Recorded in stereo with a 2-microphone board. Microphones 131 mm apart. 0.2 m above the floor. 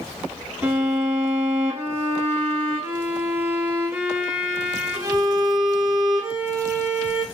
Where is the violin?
10° right (ahead or behind), 2 m.